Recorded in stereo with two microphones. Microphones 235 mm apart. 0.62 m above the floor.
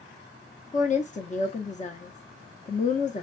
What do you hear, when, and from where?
0.7 s a woman speaking: 30° left (ahead or behind), 0.8 m